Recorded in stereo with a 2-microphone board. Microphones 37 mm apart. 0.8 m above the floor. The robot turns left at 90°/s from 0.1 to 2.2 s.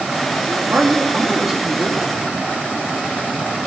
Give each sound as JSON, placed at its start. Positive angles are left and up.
{"t": 0.5, "sound": "a man speaking", "azimuth_deg": -60, "distance_m": 1.7}